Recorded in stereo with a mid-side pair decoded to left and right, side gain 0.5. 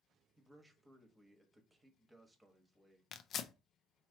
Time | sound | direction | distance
0.4 | a man speaking | 10° right | 1.3 m
3.1 | tearing paper | 55° left | 0.5 m